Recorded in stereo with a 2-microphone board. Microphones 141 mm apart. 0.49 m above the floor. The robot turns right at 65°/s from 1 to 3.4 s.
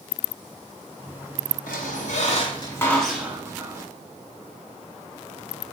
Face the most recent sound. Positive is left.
turn(degrees=-160)